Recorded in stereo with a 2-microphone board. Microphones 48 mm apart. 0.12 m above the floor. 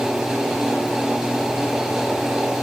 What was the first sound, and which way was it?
Only background noise.